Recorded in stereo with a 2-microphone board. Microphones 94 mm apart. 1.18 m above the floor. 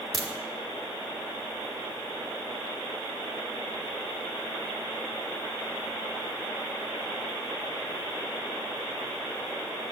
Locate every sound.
0.1 s a crack: 60° right (ahead or behind), 1.7 m